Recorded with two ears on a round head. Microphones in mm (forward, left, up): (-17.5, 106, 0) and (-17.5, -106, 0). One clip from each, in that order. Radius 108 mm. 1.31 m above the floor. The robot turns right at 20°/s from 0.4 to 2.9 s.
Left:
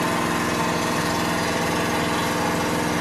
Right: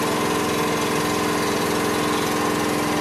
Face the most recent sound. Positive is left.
turn(degrees=-65)